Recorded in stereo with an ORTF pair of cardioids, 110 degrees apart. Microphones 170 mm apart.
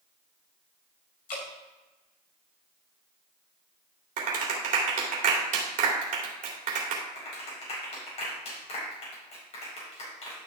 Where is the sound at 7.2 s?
40° left, 5 m.